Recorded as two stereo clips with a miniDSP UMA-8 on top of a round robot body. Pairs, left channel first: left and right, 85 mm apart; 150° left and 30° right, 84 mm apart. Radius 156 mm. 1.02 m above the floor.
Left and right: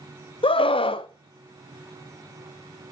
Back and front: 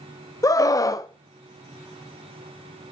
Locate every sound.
0.4 s a scream: 100° left, 0.9 m